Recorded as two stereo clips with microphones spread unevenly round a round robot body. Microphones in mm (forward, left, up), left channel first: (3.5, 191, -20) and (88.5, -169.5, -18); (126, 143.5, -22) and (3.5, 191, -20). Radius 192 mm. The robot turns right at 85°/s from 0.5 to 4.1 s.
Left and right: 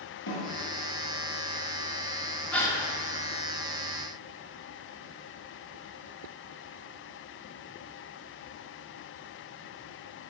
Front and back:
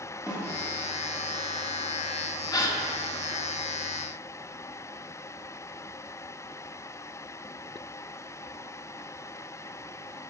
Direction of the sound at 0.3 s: 45° left.